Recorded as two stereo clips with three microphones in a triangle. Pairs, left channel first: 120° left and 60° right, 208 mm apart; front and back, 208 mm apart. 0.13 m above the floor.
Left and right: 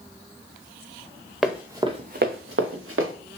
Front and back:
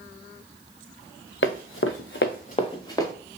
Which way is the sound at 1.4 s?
30° left.